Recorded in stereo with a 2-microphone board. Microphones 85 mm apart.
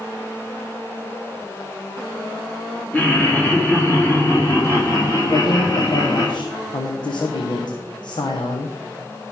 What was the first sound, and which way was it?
Laughter, 20° left (ahead or behind).